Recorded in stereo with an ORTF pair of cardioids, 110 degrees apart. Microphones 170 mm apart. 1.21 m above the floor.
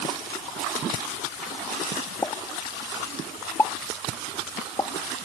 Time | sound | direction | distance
2.2 | a pop | 15° left | ?